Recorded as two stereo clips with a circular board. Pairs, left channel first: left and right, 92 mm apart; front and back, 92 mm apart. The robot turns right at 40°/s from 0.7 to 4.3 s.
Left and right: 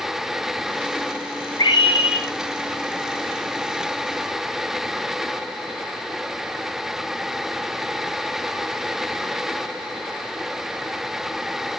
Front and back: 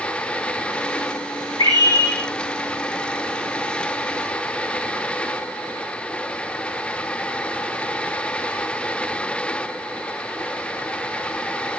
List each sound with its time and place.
1.6 s a scream: 40° left, 5 m; by 2.2 s 70° left, 5 m